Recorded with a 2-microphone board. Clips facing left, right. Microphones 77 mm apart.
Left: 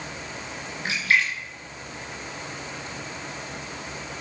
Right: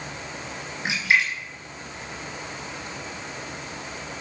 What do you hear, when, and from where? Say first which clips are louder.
0.8 s a splash: right 1 dB; 20° right (ahead or behind), 3.5 m